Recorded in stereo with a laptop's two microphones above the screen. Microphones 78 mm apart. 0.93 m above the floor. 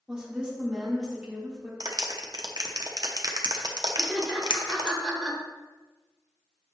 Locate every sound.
0.1 s a woman speaking: 10° right (ahead or behind), 3 m
1.8 s a clap: 60° right (ahead or behind), 0.8 m
4.0 s laughter: 5° left (ahead or behind), 3 m